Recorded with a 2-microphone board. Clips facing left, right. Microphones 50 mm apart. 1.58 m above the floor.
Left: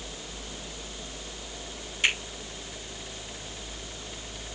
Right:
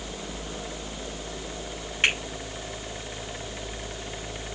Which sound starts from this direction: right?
A finger snap, at 2.0 s.